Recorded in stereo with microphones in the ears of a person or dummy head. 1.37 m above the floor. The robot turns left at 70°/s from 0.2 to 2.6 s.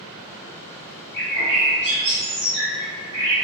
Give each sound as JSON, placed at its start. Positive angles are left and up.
{"t": 1.1, "sound": "a bird", "azimuth_deg": 15, "distance_m": 1.8}